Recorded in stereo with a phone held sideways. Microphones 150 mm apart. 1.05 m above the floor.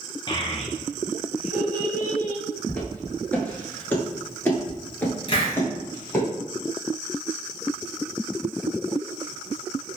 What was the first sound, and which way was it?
A child speaking, 30° left (ahead or behind).